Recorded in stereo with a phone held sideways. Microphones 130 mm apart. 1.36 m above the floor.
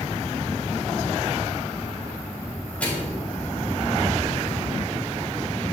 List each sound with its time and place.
2.8 s a microwave: 10° left (ahead or behind), 4 m